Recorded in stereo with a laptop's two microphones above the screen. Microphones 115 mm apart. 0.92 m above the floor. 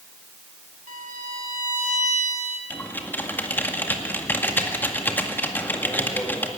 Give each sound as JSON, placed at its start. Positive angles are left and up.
{"t": 0.9, "sound": "a violin", "side_deg": -80, "distance_m": 1.9}
{"t": 2.7, "sound": "typing on a keyboard", "side_deg": 15, "distance_m": 2.0}